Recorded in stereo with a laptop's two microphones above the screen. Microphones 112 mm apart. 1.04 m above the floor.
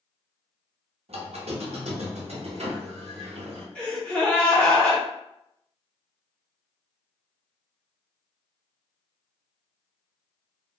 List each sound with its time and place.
1.1 s a squeak: 70° right (ahead or behind), 0.7 m
3.8 s a gasp: 10° left (ahead or behind), 0.7 m